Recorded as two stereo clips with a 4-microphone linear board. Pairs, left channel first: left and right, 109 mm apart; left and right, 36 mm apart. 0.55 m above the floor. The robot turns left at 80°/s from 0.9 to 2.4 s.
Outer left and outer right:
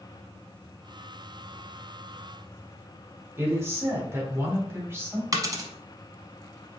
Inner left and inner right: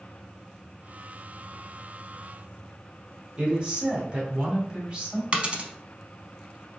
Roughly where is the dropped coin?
Right.